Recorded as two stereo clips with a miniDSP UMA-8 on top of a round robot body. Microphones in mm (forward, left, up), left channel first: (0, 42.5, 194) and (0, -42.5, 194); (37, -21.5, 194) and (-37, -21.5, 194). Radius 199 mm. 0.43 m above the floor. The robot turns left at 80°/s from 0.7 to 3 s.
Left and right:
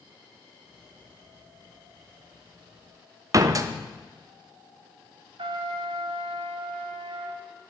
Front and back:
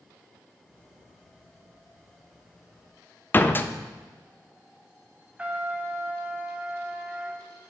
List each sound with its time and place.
3.3 s a door slam: 55° right, 1.0 m
5.4 s a trumpet: 105° right, 1.3 m